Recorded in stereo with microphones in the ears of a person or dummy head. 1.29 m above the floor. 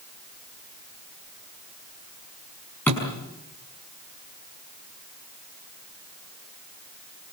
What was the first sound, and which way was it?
A thud, 10° left (ahead or behind).